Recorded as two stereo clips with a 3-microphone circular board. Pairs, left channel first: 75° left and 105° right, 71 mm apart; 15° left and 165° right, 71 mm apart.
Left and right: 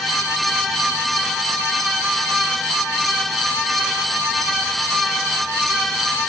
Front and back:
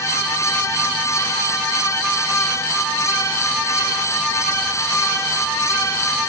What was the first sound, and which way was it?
Only background noise.